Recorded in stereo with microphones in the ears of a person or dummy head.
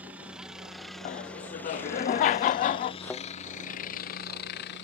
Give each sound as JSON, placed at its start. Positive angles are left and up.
{"t": 0.0, "sound": "a helicopter", "side_deg": -5}
{"t": 1.1, "sound": "laughter", "side_deg": 25}
{"t": 3.0, "sound": "a thud", "side_deg": 10}